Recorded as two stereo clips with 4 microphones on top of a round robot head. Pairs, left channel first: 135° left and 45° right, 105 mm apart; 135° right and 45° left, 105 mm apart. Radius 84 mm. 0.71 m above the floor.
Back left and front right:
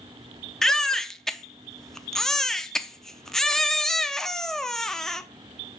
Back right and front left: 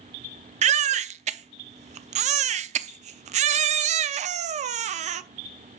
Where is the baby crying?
50° left, 0.6 m.